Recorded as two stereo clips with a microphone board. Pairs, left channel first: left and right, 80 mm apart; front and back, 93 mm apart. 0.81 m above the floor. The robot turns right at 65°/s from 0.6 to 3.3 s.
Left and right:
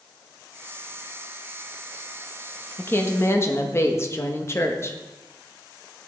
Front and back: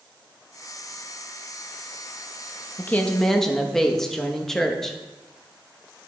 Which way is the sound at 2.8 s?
50° left.